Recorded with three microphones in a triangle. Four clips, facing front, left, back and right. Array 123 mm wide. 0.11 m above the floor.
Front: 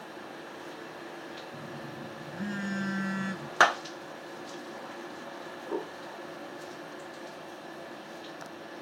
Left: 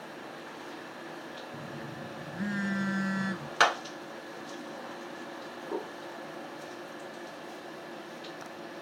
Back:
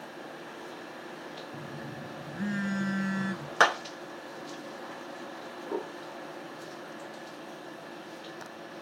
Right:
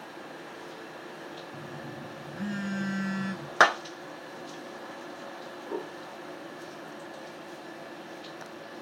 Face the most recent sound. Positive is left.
turn(degrees=-80)